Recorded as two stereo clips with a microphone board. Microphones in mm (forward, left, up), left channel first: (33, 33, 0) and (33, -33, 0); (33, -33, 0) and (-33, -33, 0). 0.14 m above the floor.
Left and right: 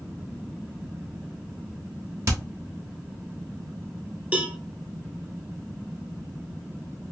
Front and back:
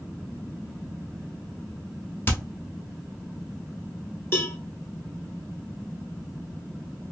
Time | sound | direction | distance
2.3 | hammering | 55° right | 1.1 m
4.3 | a cowbell | 30° right | 0.7 m